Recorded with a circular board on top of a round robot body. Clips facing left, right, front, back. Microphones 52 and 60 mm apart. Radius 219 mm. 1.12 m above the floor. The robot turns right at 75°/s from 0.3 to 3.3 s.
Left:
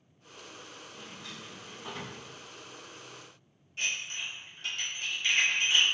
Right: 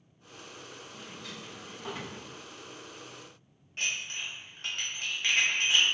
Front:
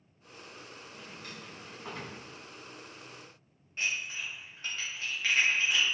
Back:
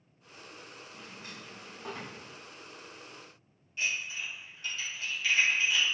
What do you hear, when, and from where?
0.9 s a drawer: 125° left, 1.5 m; by 2.2 s 140° right, 1.5 m
3.8 s dishes clattering: 45° right, 0.9 m